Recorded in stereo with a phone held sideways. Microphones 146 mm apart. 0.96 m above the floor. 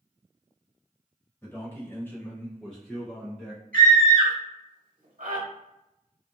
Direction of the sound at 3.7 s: 80° right.